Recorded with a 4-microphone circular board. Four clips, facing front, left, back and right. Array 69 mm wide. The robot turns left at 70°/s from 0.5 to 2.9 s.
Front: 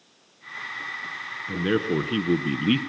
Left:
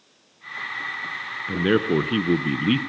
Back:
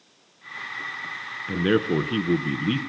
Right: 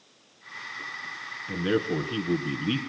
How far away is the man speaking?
About 1.2 m.